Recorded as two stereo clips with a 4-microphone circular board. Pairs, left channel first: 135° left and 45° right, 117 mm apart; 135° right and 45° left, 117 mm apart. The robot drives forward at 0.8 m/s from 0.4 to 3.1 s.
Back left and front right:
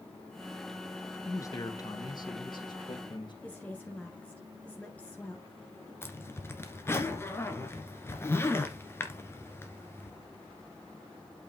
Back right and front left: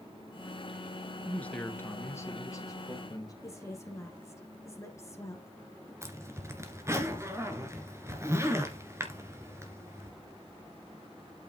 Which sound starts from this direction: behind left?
A man speaking, at 1.2 s.